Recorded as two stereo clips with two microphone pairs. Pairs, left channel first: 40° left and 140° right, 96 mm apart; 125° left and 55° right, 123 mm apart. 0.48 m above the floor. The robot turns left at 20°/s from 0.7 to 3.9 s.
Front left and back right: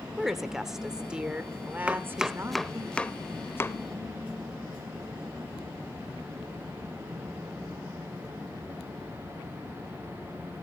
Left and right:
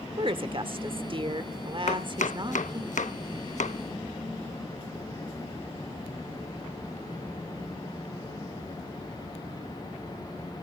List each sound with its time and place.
0.2 s a woman speaking: 50° right, 1.0 m; by 2.9 s 95° right, 1.0 m
1.9 s chopping: 140° left, 0.6 m; by 3.8 s 100° left, 0.6 m